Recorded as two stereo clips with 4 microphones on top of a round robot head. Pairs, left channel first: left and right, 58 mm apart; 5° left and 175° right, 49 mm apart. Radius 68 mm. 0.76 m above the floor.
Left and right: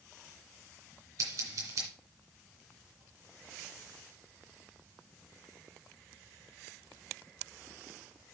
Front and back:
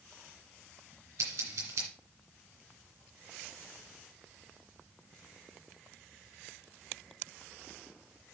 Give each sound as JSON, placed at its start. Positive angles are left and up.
{"t": 1.2, "sound": "scissors", "azimuth_deg": -135, "distance_m": 2.5}